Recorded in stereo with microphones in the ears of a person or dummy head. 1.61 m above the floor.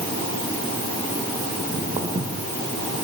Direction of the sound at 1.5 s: 20° right (ahead or behind).